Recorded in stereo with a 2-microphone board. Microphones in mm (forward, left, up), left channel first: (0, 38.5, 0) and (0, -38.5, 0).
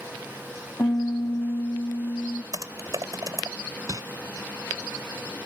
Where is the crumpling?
45° right (ahead or behind).